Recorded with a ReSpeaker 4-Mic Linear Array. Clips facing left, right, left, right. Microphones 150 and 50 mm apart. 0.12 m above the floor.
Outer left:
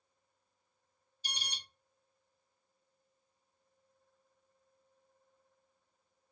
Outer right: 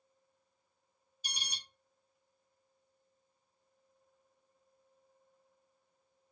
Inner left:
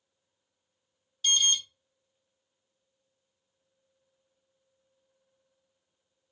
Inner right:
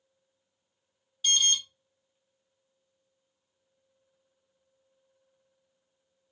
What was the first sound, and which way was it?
An alarm, 15° right (ahead or behind).